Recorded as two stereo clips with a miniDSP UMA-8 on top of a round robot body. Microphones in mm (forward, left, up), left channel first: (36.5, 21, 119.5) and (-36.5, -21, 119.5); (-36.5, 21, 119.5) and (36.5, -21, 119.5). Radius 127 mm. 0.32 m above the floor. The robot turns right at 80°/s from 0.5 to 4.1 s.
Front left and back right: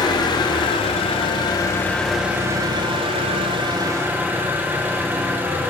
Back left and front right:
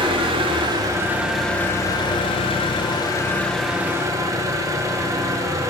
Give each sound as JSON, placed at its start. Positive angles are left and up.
{"t": 0.0, "sound": "an engine running", "azimuth_deg": -10, "distance_m": 0.7}